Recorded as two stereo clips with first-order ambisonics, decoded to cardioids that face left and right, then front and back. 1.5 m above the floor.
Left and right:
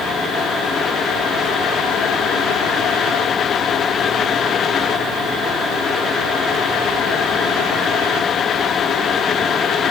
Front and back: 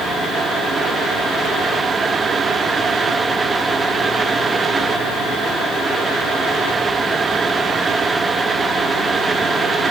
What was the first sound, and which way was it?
Only background noise.